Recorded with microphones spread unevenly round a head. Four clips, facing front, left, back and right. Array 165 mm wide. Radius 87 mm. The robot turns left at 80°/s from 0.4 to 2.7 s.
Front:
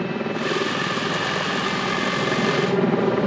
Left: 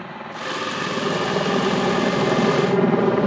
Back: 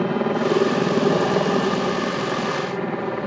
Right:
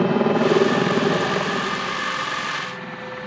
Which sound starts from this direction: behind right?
A helicopter, at 0.0 s.